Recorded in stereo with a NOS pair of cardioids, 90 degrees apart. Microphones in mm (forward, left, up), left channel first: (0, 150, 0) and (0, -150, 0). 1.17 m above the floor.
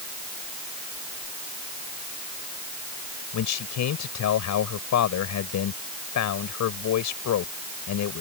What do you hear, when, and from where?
3.3 s a man speaking: 70° left